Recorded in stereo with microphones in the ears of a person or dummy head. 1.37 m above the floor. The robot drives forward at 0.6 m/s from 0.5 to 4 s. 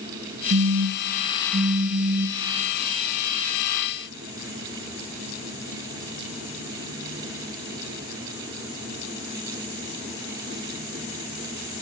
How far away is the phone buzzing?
About 1.5 m.